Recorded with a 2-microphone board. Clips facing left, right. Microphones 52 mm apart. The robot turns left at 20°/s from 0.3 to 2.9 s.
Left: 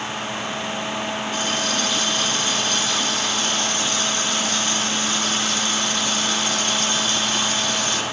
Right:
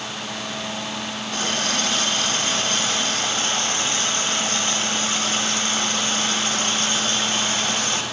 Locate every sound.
1.3 s a running tap: 95° right, 1.0 m; by 8.0 s 125° right, 1.0 m